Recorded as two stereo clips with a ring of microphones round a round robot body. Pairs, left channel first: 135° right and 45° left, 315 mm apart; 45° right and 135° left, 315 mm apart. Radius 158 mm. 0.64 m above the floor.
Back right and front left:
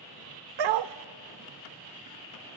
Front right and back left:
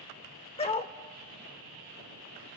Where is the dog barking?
30° left, 0.6 m.